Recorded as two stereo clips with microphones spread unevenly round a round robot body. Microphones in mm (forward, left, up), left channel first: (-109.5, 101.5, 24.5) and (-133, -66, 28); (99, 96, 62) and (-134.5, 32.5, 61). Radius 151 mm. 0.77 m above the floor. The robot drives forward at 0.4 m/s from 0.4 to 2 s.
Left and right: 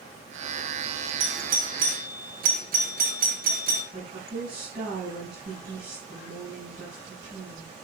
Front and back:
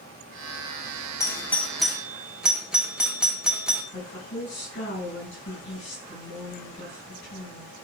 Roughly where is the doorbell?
Ahead right.